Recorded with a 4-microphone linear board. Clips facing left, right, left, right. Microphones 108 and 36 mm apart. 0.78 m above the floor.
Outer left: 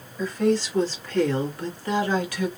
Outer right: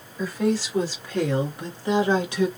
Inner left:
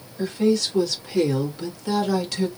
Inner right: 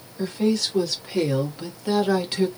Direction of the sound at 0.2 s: 5° right (ahead or behind).